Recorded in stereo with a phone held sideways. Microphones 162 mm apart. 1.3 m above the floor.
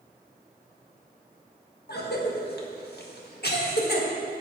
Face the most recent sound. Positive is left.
turn(degrees=85)